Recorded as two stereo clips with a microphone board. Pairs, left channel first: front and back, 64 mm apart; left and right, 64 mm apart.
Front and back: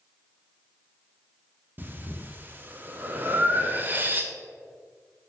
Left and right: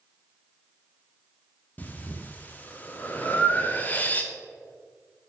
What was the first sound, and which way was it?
Breathing, 135° left.